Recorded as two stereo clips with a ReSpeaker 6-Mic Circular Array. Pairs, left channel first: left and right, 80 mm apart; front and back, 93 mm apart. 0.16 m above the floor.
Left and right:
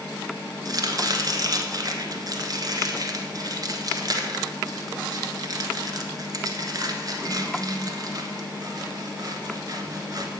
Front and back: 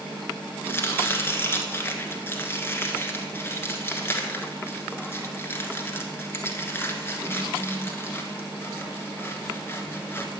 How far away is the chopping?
About 1.1 m.